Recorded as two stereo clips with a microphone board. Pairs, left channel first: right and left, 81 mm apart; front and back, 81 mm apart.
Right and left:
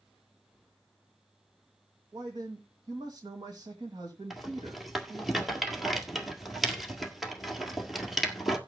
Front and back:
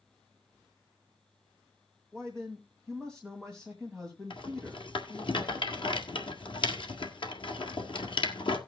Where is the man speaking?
85° left, 2 m.